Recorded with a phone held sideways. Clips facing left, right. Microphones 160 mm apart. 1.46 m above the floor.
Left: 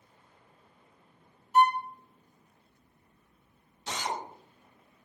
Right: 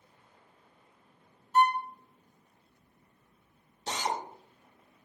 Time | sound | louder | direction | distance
1.5 | a violin | left 2 dB | 15° left (ahead or behind) | 0.5 m
3.9 | a drill | right 2 dB | 35° right (ahead or behind) | 1.0 m